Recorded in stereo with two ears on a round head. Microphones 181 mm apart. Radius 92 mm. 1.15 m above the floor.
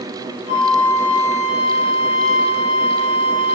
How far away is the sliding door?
I don't hear a sliding door.